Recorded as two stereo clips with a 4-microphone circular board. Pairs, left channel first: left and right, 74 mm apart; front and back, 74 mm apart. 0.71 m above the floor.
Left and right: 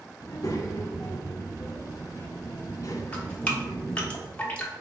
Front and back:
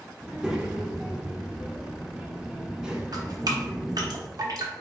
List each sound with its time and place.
0.2 s a child speaking: 105° left, 0.8 m
3.1 s dripping: 160° left, 0.8 m